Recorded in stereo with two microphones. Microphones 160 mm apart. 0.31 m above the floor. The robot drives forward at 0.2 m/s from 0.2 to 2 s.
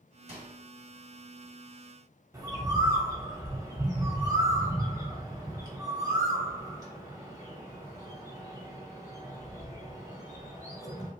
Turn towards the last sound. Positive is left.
turn(degrees=-20)  # may be behind; listen again after turning